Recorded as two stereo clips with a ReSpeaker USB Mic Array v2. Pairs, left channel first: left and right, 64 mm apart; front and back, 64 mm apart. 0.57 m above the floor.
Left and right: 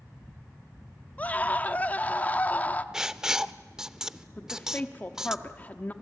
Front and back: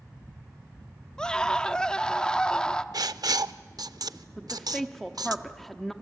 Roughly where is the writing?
Behind.